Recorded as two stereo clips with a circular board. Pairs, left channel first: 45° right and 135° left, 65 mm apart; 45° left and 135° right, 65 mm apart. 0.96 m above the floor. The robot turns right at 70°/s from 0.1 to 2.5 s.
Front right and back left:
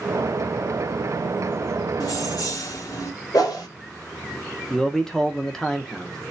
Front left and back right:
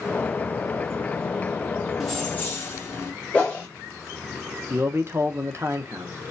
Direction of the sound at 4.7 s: 125° right.